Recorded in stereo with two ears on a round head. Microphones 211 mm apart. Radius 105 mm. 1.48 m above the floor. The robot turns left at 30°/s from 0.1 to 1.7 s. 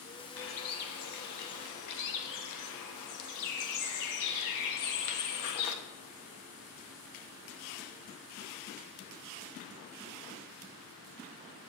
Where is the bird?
125° left, 1.0 m; by 5.8 s 85° left, 1.0 m.